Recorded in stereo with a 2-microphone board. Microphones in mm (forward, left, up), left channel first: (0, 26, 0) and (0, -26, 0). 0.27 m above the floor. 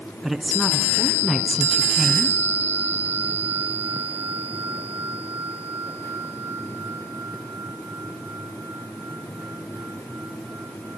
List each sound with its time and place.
0.2 s a woman speaking: centre (ahead or behind), 3 m